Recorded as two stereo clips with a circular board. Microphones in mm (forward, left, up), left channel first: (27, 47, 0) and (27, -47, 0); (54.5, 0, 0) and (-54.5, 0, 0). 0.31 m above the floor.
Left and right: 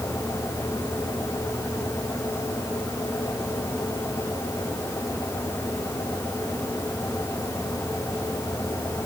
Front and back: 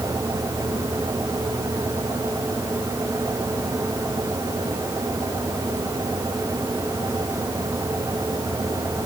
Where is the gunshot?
I don't hear a gunshot.